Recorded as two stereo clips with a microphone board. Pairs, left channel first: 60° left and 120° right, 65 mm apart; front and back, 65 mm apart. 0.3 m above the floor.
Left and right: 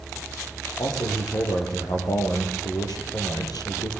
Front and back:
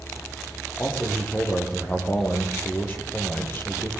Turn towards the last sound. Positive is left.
turn(degrees=55)